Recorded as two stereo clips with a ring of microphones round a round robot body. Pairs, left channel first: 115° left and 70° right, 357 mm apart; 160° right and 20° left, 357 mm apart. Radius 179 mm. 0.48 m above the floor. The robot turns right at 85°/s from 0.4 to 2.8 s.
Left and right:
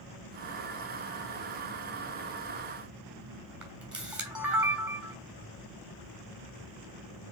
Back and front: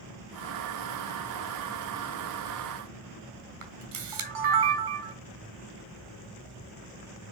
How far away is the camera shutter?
About 3 m.